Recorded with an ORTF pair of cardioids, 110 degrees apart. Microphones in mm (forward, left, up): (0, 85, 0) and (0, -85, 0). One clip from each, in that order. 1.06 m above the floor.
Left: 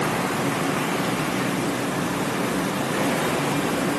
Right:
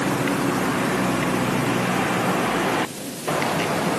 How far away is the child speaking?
I don't hear a child speaking.